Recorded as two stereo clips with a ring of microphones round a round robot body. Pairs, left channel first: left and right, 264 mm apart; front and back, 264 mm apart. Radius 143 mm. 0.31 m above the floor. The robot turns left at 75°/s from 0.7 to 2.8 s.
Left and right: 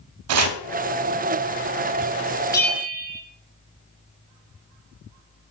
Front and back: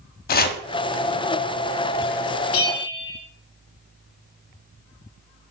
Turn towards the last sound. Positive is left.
turn(degrees=-5)